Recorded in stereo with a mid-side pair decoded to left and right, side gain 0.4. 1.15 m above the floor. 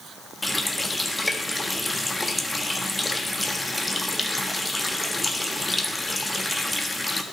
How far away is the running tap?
About 1.4 m.